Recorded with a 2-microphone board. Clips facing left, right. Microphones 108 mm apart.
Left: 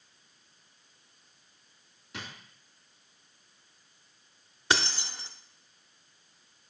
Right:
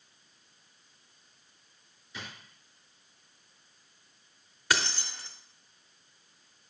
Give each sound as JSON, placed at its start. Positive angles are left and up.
{"t": 2.1, "sound": "a drawer", "side_deg": 85, "distance_m": 2.5}
{"t": 4.7, "sound": "keys jangling", "side_deg": 25, "distance_m": 0.6}